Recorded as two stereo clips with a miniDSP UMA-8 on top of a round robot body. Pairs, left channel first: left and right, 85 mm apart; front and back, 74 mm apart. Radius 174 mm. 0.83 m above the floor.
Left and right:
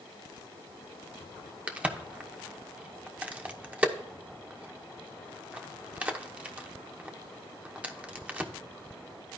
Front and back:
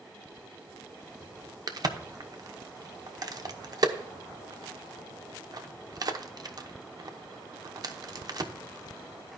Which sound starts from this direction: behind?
A crack, at 1.7 s.